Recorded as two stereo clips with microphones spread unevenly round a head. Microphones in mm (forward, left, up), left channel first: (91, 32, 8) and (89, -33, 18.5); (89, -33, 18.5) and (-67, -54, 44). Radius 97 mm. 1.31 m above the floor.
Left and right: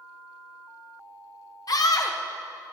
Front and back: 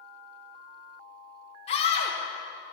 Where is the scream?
65° left, 1.3 m.